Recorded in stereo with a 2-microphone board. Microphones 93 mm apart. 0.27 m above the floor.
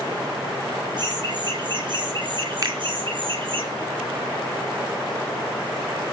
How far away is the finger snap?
About 3 m.